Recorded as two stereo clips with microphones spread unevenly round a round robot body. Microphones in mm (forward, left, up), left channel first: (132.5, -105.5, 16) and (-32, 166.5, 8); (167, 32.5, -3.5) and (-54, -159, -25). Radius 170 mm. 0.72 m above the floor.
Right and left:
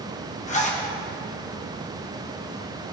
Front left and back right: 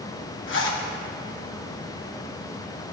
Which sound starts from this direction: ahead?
A zipper, at 0.5 s.